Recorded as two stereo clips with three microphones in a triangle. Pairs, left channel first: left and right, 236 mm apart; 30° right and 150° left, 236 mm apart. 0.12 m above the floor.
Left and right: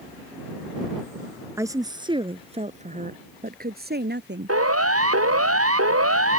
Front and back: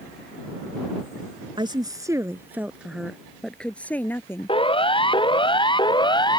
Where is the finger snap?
I don't hear a finger snap.